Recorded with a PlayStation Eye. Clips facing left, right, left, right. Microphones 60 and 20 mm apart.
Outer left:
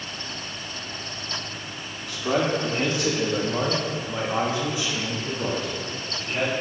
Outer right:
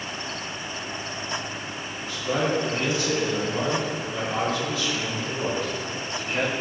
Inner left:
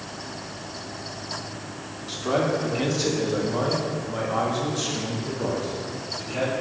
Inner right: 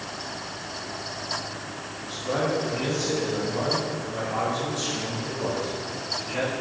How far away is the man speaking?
About 1.8 m.